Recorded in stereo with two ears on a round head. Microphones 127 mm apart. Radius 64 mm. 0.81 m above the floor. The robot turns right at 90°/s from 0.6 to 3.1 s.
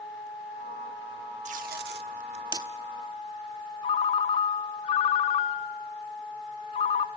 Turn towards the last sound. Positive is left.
turn(degrees=40)  # may be behind; listen again after turning